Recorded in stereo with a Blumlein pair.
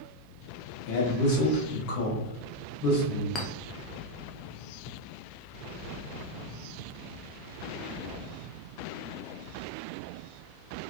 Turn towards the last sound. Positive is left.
turn(degrees=20)